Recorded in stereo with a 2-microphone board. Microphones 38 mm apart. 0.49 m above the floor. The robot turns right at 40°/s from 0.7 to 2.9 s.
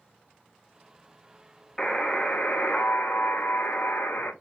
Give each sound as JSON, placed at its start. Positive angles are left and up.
{"t": 1.8, "sound": "a buzzer", "azimuth_deg": 15, "distance_m": 0.5}